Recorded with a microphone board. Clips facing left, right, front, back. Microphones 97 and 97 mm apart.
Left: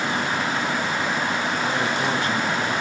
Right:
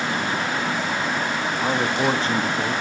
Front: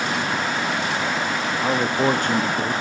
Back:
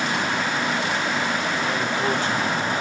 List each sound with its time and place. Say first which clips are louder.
1.6 s a man speaking: right 6 dB, front 4 dB; 30° right, 2.0 m